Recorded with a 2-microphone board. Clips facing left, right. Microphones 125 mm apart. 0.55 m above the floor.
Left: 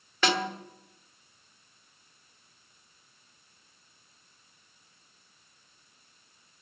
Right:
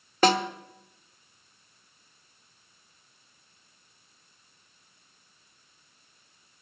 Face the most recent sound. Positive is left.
turn(degrees=-40)  # may be behind; listen again after turning